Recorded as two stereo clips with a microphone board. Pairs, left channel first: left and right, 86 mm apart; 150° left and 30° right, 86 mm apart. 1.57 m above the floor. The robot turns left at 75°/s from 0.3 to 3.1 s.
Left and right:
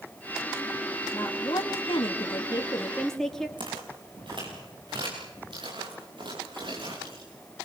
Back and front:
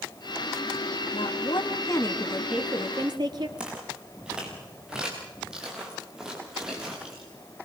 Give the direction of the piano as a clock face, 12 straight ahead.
I don't hear a piano.